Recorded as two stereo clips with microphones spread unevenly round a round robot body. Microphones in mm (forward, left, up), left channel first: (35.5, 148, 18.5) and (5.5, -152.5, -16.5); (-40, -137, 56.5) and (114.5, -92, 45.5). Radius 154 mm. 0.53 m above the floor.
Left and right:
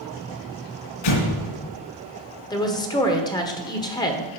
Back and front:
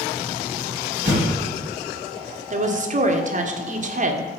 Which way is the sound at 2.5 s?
5° left.